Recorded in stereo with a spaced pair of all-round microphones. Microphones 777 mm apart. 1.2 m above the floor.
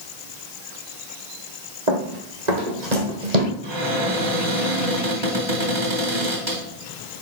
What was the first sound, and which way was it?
Running footsteps, 60° right (ahead or behind).